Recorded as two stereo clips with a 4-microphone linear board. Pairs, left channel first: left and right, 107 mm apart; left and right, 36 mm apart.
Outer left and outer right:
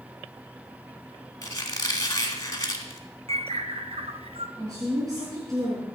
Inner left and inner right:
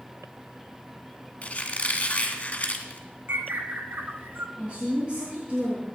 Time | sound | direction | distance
1.4 | a squeak | 35° left (ahead or behind) | 2.5 m
3.3 | a bird | 75° right (ahead or behind) | 1.6 m
4.6 | a woman speaking | 35° right (ahead or behind) | 5 m